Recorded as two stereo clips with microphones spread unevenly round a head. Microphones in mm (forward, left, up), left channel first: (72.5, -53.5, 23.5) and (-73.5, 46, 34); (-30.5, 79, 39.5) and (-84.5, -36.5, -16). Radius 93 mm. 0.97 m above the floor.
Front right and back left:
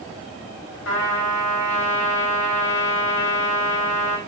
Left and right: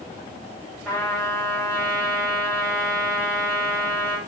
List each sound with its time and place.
0.8 s a trumpet: 30° right, 4.5 m